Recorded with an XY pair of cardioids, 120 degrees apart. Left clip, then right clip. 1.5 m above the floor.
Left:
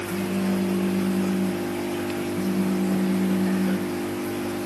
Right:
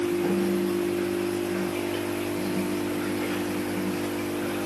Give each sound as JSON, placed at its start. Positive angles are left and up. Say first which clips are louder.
{"t": 0.1, "sound": "a phone buzzing", "louder": "right 2 dB", "azimuth_deg": 50, "distance_m": 5.0}